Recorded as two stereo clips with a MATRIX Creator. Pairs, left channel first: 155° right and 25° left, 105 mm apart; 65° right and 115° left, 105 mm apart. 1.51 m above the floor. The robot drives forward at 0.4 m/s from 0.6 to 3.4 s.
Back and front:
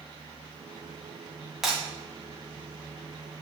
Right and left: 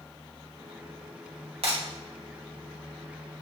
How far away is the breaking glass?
About 2 m.